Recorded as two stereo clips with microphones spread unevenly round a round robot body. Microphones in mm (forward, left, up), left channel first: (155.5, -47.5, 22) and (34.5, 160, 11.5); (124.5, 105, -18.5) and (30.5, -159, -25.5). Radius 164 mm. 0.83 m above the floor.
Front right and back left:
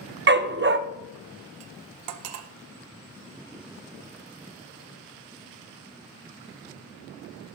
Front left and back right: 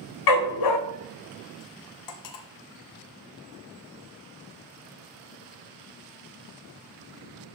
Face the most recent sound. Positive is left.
turn(degrees=105)